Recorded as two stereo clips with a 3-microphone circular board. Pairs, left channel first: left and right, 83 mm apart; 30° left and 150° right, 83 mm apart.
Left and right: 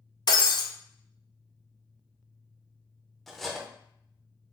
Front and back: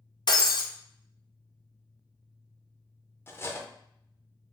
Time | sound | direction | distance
0.3 | breaking glass | 55° left | 0.7 m
3.3 | cutlery clinking | straight ahead | 0.5 m